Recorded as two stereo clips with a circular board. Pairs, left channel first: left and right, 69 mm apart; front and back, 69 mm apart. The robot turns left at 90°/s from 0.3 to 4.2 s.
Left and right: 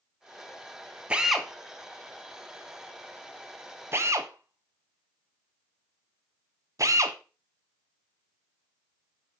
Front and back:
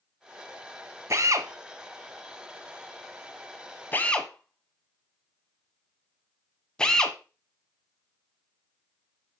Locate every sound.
1.1 s a drill: 155° right, 0.9 m; by 7.2 s 75° right, 0.9 m